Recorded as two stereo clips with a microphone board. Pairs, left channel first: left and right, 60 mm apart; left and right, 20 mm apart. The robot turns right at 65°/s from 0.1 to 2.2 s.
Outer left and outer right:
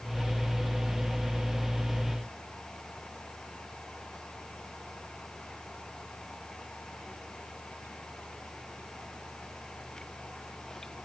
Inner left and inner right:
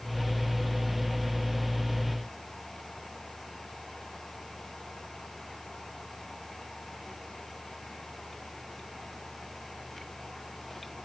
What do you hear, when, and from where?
Only background noise.